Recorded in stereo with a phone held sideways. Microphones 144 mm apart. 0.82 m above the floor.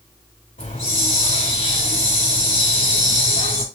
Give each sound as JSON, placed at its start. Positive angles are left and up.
{"t": 0.6, "sound": "a hiss", "side_deg": 80, "distance_m": 4.0}